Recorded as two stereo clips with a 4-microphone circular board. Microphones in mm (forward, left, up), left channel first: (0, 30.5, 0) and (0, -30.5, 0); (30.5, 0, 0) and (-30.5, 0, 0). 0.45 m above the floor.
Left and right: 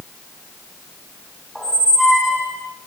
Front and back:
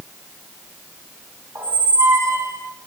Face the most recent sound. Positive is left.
turn(degrees=-170)